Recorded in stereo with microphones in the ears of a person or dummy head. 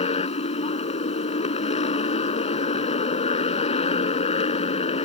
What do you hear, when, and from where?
0.0 s a motorcycle: 30° left (ahead or behind)